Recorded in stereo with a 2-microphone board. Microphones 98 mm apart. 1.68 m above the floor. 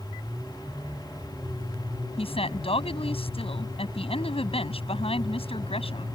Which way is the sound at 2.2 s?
75° left (ahead or behind).